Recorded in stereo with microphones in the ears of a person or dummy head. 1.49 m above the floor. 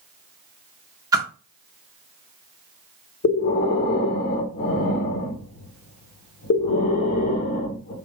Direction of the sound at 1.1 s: 20° right (ahead or behind).